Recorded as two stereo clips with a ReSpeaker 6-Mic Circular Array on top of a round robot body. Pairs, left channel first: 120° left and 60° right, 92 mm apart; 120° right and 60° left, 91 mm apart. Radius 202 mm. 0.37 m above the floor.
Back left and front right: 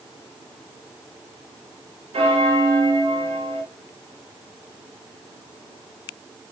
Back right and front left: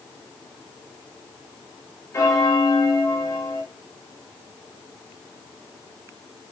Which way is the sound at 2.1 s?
60° right.